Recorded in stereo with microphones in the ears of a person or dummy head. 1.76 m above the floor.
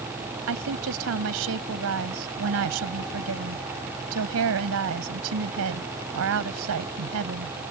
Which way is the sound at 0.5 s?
85° right.